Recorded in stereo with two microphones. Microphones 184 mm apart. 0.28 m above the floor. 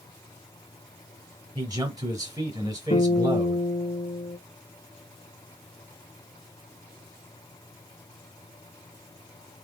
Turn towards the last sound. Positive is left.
turn(degrees=45)  # may be behind; listen again after turning